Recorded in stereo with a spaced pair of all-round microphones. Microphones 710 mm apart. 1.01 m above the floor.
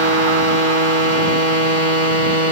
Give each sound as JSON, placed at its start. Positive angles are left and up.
{"t": 0.0, "sound": "a machine running", "side_deg": 90}